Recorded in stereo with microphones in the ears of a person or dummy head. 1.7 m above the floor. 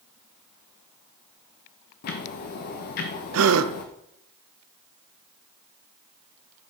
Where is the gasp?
80° right, 0.6 m.